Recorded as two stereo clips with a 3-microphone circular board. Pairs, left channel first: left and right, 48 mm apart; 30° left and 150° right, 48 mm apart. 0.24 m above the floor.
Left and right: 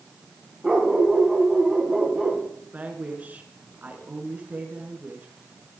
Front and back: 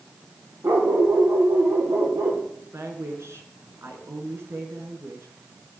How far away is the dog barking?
About 6.5 m.